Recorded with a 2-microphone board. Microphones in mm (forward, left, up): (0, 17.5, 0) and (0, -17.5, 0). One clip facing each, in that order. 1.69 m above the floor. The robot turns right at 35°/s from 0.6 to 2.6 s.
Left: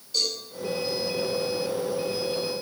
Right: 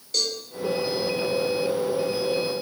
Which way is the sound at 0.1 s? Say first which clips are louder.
Right 1 dB; 75° right (ahead or behind).